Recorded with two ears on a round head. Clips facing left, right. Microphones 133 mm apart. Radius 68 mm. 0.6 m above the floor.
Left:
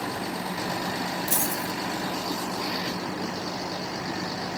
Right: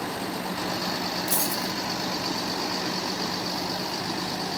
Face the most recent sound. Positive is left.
turn(degrees=15)  # may be behind; listen again after turning